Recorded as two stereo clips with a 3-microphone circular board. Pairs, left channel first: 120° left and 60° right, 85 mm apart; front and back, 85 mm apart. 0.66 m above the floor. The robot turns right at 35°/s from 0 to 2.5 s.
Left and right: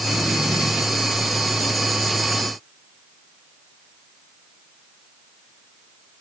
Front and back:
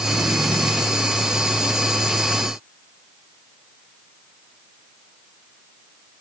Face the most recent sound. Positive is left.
No sound to turn to.